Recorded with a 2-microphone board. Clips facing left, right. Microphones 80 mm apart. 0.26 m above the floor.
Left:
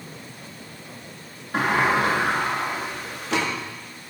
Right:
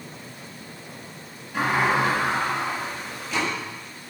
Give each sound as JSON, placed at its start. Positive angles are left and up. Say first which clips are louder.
{"t": 1.5, "sound": "a sliding door", "louder": "left 1 dB", "side_deg": 70, "distance_m": 3.0}